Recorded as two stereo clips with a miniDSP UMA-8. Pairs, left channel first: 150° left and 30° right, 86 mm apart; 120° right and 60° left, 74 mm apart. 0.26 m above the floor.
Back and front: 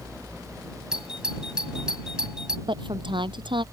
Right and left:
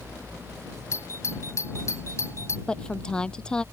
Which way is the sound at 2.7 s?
40° right.